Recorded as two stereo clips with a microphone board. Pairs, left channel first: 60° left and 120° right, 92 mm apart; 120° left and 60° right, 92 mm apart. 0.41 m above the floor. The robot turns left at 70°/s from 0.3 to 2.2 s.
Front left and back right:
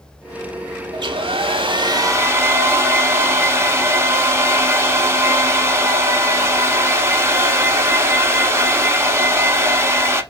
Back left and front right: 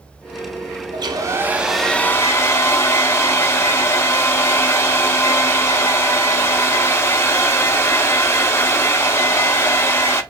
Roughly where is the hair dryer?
Right.